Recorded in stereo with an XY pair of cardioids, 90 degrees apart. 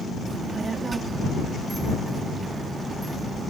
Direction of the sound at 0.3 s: 40° right.